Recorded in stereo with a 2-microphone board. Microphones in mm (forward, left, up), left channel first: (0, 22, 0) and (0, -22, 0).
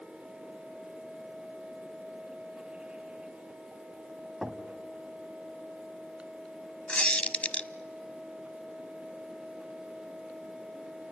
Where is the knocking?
10° right (ahead or behind), 1.5 m.